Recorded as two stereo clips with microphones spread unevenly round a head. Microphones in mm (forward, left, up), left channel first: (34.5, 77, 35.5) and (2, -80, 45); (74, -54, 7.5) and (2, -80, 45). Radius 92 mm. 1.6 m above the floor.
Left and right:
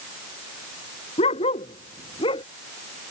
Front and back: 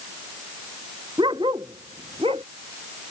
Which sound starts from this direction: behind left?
A dog barking, at 1.2 s.